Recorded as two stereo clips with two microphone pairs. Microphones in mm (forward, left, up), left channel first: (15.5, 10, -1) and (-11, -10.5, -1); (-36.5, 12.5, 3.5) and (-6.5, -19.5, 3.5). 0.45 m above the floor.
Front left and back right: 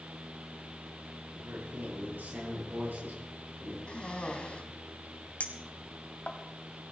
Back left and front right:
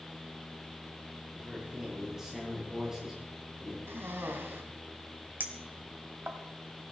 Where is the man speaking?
125° right, 8 m.